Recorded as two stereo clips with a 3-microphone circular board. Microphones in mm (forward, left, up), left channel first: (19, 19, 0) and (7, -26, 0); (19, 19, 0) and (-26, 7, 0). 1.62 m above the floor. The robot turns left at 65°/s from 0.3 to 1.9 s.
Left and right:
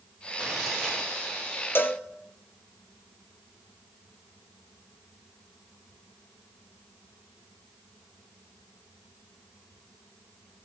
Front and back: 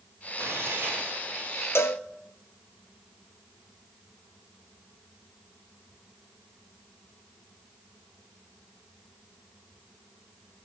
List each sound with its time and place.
0.4 s tearing paper: 175° right, 4 m; by 1.3 s 125° left, 4 m
1.8 s a cowbell: 40° left, 0.8 m; by 2.0 s 30° left, 0.8 m